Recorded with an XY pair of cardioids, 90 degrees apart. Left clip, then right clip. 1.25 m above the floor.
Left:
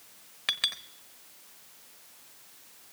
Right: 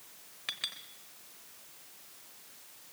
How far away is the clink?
About 0.9 m.